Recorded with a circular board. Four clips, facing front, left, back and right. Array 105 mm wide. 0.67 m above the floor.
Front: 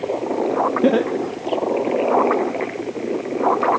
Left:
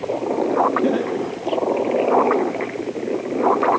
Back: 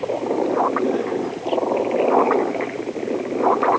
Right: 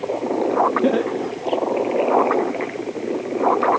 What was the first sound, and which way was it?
Laughter, 15° right.